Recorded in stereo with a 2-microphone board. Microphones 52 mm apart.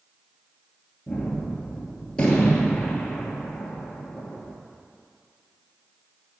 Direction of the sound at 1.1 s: 20° left (ahead or behind).